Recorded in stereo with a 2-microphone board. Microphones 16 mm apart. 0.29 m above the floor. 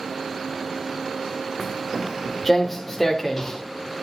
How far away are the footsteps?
About 2.0 m.